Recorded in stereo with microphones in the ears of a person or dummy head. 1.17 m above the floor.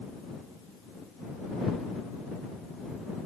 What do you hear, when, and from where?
Only background noise.